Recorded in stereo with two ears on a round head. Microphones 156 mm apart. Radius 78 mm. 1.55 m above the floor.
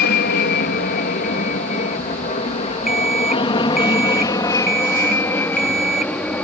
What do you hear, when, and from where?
0.0 s an aircraft: 55° left (ahead or behind); by 6.5 s 5° left (ahead or behind)
2.9 s an alarm clock: 5° right (ahead or behind)